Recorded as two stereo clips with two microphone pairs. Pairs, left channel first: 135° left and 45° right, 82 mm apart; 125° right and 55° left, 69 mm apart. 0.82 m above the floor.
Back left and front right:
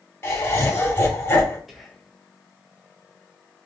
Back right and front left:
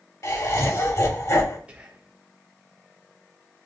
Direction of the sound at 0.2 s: 165° right.